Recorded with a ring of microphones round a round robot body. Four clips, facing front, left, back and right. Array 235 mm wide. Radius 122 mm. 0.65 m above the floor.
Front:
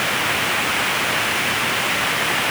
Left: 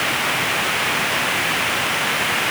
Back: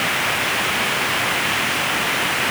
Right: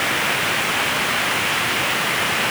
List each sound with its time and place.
Only background noise.